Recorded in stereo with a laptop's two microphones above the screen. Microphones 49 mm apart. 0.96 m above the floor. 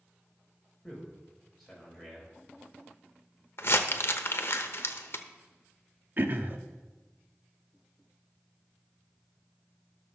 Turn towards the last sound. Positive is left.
turn(degrees=-45)  # may be behind; listen again after turning